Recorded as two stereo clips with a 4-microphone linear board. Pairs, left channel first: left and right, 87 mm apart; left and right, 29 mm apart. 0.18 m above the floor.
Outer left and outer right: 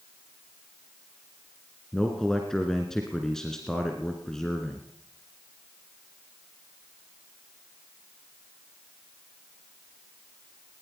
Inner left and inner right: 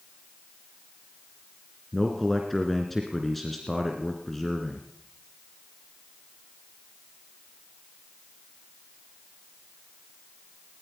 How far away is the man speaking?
About 2.5 m.